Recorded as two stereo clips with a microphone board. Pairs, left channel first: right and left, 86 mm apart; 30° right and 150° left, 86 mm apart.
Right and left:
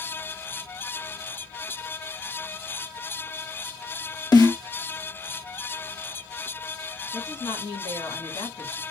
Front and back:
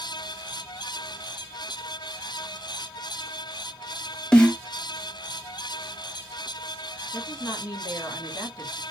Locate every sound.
4.3 s a snare drum: 110° right, 1.0 m
7.1 s a woman speaking: 60° right, 2 m